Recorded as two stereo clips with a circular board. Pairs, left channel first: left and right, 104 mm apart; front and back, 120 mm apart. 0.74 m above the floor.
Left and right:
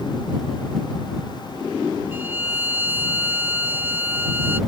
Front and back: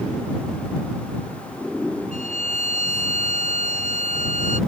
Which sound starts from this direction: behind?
A violin, at 2.1 s.